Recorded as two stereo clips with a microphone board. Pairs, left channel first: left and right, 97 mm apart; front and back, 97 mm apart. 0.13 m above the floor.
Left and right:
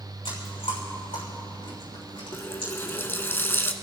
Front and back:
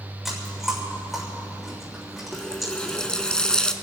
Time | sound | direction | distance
0.2 | chewing | 90° left | 6.5 m
2.3 | a running tap | 70° left | 0.9 m